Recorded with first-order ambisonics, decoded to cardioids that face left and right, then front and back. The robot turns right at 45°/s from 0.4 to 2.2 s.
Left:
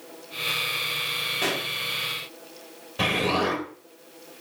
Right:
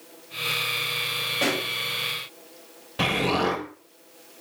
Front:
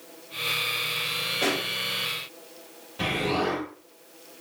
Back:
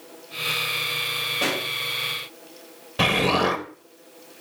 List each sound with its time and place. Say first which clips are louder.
1.4 s a pop: right 2 dB, even; 115° right, 4 m; by 1.7 s 100° right, 4 m
3.0 s an explosion: even, back 6 dB; 165° right, 1.1 m